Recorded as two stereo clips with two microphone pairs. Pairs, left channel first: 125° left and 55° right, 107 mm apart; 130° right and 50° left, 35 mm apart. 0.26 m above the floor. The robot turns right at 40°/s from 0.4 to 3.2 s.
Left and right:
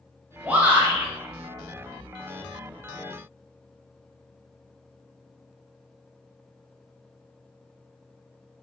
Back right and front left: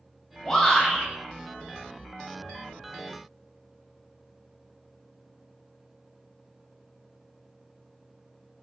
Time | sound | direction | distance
0.4 | a shout | 110° right | 1.2 m